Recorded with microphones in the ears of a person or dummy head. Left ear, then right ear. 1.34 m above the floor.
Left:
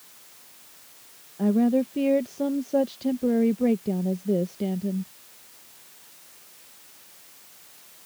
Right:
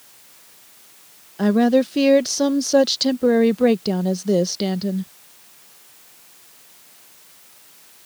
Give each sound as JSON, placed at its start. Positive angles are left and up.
{"t": 1.4, "sound": "a woman speaking", "side_deg": -65}